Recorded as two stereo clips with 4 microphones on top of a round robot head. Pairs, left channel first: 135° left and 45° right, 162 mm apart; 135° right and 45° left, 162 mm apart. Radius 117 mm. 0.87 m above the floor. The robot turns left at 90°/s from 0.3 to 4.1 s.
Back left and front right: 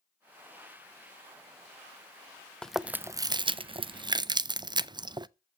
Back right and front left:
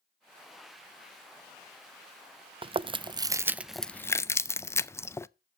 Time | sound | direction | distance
2.6 | chewing | 55° left | 0.6 m